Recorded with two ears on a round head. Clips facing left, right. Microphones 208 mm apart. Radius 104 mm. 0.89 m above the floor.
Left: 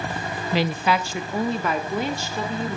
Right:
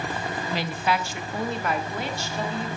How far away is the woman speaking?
About 0.6 m.